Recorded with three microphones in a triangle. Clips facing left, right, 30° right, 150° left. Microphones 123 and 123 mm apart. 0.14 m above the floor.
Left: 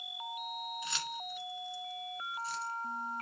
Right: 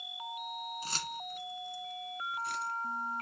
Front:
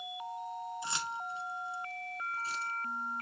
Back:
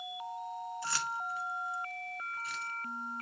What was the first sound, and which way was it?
Keys jangling, 90° right.